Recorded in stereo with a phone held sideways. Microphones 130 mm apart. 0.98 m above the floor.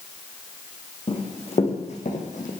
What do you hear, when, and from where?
1.1 s running footsteps: 50° left (ahead or behind), 4 m; by 2.5 s 65° left (ahead or behind), 2.5 m